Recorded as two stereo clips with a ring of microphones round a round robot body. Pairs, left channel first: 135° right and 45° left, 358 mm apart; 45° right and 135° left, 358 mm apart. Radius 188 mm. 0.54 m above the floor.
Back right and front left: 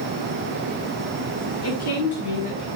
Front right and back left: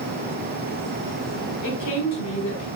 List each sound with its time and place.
1.6 s a woman speaking: 85° right, 5.5 m; by 2.7 s 100° right, 6 m